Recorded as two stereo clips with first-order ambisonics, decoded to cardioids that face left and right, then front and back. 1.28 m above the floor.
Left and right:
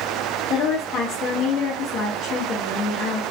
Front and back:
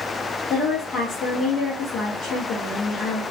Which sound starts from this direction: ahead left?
A woman speaking, at 0.5 s.